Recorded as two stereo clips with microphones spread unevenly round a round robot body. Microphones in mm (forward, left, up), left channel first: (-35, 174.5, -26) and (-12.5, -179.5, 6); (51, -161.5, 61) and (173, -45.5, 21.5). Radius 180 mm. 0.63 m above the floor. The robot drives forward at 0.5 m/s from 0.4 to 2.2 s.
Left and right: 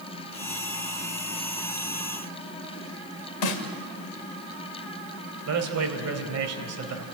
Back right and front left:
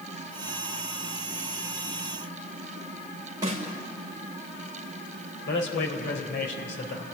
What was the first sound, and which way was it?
A snare drum, 115° left.